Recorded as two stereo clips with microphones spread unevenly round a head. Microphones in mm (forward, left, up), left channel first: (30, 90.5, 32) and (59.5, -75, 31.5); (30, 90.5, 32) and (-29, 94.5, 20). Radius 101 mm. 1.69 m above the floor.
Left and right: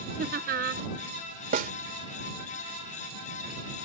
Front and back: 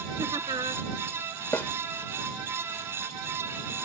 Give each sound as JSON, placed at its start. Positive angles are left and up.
{"t": 0.2, "sound": "laughter", "azimuth_deg": -130}
{"t": 1.5, "sound": "a snare drum", "azimuth_deg": -60}